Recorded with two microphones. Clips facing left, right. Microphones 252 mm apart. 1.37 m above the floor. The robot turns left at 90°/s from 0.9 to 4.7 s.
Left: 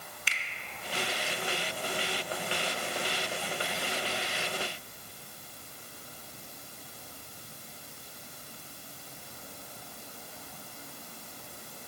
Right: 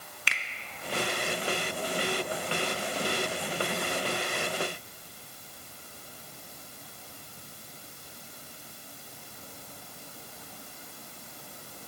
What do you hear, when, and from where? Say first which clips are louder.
0.3 s a finger snap: right 6 dB; 60° right (ahead or behind), 0.9 m